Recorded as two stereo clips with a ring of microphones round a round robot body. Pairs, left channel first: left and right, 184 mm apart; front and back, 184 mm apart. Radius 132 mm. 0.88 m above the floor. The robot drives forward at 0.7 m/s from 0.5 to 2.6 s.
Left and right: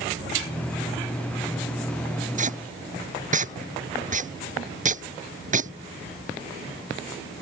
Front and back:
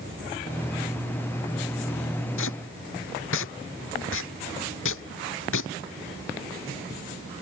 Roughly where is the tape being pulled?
Ahead right.